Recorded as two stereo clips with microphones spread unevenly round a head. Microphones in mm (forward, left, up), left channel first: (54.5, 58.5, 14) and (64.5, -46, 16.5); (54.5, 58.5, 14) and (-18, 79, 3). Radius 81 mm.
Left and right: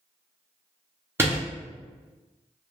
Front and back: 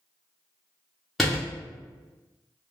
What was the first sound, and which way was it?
A door slam, 85° right.